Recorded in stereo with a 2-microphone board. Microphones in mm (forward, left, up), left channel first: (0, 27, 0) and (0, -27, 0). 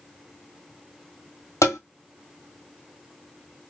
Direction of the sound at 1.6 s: 70° left (ahead or behind).